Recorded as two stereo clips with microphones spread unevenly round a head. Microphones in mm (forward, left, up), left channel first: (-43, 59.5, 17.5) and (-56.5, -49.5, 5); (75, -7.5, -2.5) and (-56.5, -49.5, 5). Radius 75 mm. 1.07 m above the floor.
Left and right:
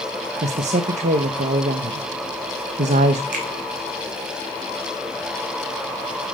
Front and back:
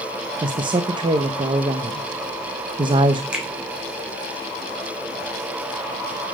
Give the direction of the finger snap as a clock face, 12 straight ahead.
3 o'clock.